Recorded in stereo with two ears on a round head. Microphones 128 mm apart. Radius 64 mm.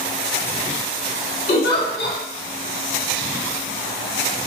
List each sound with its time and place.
1.5 s a giggle: 70° left (ahead or behind), 1.3 m